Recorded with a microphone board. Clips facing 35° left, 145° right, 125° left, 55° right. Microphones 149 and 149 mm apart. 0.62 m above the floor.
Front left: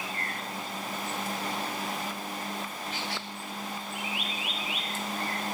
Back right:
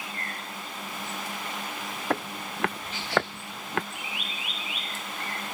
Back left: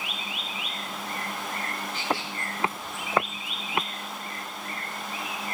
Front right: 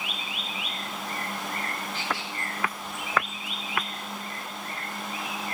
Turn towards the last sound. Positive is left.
turn(degrees=-170)